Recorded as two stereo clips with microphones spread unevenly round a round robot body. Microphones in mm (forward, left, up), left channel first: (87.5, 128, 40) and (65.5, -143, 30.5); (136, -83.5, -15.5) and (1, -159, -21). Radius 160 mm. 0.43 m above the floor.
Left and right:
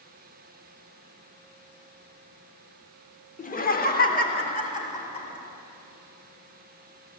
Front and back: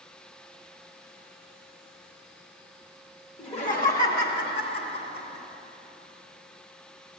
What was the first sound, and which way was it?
Laughter, 55° left.